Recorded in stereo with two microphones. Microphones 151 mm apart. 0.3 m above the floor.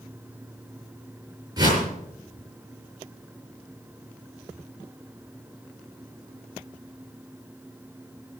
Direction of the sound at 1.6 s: 30° right (ahead or behind).